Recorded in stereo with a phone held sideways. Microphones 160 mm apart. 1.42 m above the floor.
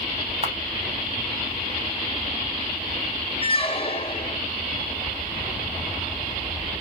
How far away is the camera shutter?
About 1.0 m.